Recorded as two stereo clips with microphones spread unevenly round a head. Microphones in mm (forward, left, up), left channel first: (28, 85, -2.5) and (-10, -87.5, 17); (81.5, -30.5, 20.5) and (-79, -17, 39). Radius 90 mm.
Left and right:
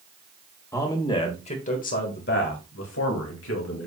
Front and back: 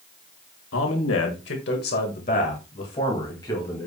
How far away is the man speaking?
About 1.9 m.